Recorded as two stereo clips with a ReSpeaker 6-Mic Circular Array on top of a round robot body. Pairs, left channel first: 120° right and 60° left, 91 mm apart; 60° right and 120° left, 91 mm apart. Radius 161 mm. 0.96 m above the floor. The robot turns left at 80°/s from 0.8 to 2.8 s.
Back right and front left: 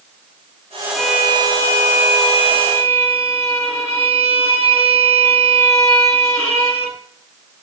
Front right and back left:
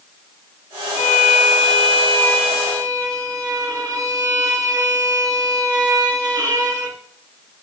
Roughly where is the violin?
Ahead.